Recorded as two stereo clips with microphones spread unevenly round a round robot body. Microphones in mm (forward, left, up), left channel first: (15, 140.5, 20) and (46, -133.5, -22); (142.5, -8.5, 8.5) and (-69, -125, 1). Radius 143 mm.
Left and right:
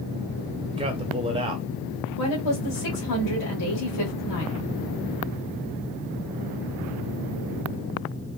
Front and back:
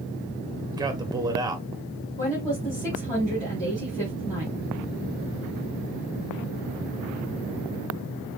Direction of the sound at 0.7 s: 100° right.